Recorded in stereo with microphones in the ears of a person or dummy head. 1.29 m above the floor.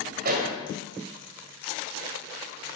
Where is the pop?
55° right (ahead or behind), 1.9 m.